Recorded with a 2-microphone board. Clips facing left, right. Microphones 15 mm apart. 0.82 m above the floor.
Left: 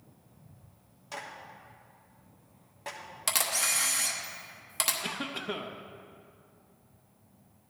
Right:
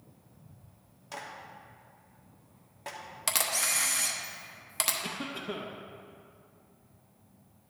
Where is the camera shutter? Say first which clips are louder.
Left 1 dB; 5° right (ahead or behind), 1.1 m.